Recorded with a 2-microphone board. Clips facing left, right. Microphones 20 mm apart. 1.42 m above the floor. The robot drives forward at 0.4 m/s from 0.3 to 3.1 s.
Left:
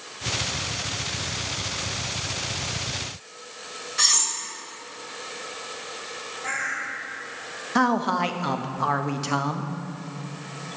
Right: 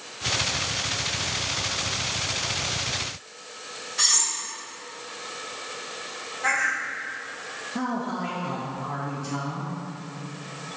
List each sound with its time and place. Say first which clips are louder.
4.0 s cutlery clinking: left 1 dB; 10° left (ahead or behind), 1.2 m
6.4 s a bird: right 5 dB; 70° right (ahead or behind), 1.2 m
7.8 s a man speaking: left 8 dB; 65° left (ahead or behind), 0.7 m